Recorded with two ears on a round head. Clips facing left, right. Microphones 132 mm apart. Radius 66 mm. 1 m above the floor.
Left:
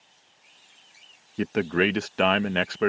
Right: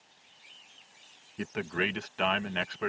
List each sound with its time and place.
1.4 s a man speaking: 60° left (ahead or behind)